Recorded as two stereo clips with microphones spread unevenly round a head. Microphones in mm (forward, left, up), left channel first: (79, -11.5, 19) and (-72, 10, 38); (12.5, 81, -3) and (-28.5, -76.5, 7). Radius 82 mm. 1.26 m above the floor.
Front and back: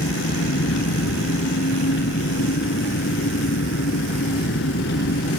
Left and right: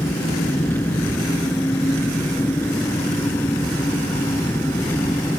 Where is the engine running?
5° right.